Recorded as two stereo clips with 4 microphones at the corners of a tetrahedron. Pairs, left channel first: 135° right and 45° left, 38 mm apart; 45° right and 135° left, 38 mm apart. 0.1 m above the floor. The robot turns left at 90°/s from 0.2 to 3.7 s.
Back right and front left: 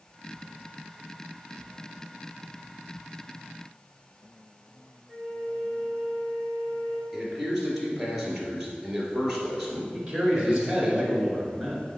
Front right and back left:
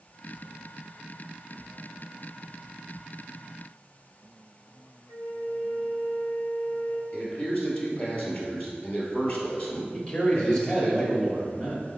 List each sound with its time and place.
5.1 s a flute: 90° right, 0.9 m
7.1 s a man speaking: 35° right, 2.0 m
9.9 s a man speaking: 5° right, 1.8 m